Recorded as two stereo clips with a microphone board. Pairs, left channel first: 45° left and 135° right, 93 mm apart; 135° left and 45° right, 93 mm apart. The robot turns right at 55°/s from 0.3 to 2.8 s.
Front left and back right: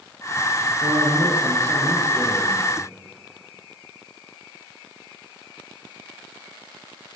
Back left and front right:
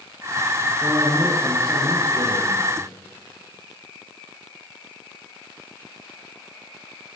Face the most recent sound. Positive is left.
turn(degrees=-25)